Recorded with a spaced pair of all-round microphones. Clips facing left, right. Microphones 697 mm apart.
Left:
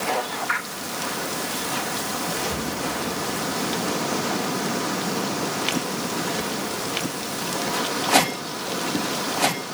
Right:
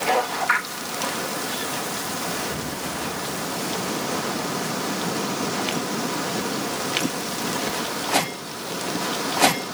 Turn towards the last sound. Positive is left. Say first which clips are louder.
# left 2 dB
turn(degrees=50)  # may be behind; listen again after turning